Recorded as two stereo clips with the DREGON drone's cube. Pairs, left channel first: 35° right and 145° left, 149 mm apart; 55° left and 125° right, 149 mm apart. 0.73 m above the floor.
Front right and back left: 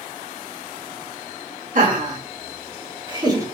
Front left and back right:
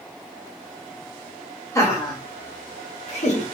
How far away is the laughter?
About 1.5 m.